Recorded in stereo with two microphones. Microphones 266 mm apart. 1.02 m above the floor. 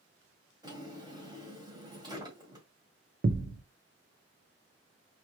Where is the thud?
40° right (ahead or behind), 0.6 m.